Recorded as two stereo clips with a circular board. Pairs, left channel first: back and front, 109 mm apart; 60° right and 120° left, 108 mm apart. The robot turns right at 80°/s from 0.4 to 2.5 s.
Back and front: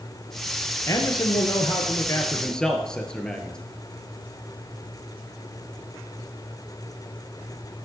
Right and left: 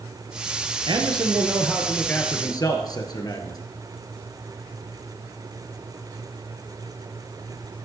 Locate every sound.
0.9 s a man speaking: 130° left, 1.7 m; by 3.6 s 100° right, 1.7 m